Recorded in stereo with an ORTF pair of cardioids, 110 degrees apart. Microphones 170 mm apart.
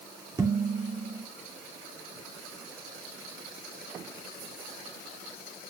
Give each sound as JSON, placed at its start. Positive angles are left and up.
{"t": 0.4, "sound": "dishes clattering", "azimuth_deg": -20, "distance_m": 3.0}